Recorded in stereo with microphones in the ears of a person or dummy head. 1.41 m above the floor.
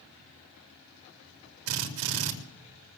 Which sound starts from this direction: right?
A drill, at 1.7 s.